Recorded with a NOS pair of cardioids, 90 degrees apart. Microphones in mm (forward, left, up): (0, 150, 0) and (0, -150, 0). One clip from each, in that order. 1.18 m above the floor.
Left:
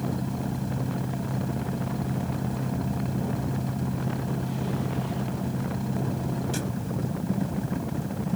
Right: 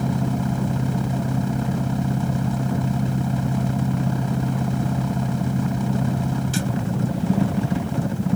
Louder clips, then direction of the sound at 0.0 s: Right 6 dB; 55° right.